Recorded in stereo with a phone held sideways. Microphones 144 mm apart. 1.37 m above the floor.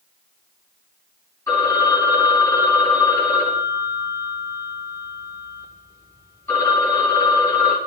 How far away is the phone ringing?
About 3 m.